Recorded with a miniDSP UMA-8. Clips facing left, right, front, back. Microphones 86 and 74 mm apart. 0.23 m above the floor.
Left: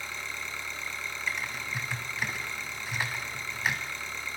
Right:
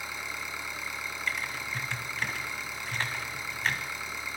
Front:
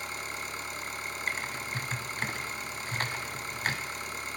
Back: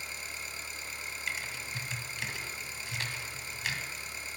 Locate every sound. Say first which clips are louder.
0.0 s an engine running: right 1 dB, front 5 dB; 15° right, 1.1 m
1.3 s typing on a keyboard: even, front 3 dB; 15° left, 0.9 m